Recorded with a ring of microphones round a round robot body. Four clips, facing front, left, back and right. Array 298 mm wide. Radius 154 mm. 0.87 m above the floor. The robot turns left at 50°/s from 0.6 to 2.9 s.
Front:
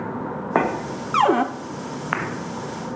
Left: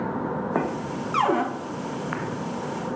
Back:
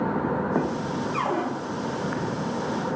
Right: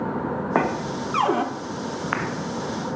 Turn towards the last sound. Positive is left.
turn(degrees=-90)